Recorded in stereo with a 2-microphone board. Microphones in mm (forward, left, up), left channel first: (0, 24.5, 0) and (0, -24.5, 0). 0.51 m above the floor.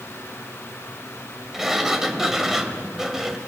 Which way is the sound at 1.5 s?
10° right (ahead or behind).